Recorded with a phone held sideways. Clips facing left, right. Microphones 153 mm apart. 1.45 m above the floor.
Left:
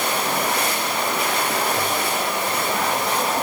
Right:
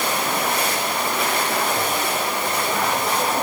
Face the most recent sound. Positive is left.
No sound to turn to.